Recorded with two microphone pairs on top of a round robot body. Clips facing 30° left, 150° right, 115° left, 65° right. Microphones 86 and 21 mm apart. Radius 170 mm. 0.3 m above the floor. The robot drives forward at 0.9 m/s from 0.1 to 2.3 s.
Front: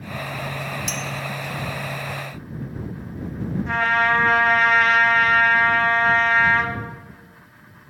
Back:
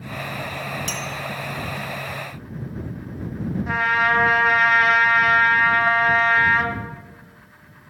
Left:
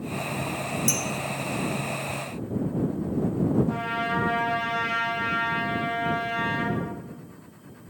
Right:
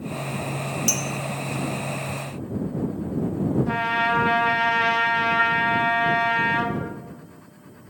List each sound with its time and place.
0.9 s a clink: 130° right, 1.3 m; by 1.1 s 135° right, 1.4 m
3.7 s a trumpet: 65° right, 1.2 m